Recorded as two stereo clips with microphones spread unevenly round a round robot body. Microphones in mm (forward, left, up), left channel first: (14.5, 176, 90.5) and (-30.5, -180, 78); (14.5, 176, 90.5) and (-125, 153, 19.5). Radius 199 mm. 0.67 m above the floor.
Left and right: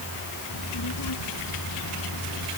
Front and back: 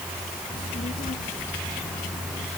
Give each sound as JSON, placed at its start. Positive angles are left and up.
{"t": 0.5, "sound": "a child speaking", "azimuth_deg": 40}